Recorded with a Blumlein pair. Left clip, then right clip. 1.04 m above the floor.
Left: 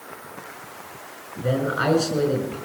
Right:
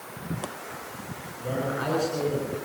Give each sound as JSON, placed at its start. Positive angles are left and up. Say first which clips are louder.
{"t": 1.4, "sound": "a man speaking", "louder": "left 6 dB", "azimuth_deg": 65, "distance_m": 7.0}